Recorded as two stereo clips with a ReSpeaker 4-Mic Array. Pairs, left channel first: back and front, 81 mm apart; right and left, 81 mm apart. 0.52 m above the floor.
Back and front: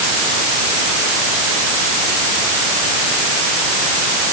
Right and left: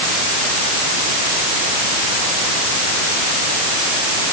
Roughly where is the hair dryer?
No hair dryer in this recording.